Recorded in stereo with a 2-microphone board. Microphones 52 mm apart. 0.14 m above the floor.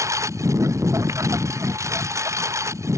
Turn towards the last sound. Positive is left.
turn(degrees=-65)  # may be behind; listen again after turning